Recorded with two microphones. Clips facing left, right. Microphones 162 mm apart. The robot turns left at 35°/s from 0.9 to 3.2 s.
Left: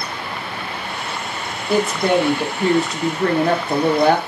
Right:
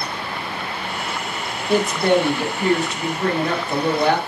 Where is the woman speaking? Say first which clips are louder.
Even; straight behind, 1.0 m; by 4.2 s 125° left, 1.0 m.